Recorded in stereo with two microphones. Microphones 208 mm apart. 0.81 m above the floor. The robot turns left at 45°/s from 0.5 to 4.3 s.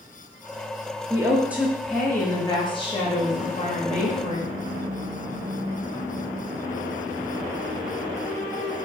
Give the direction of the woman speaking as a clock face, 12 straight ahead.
5 o'clock.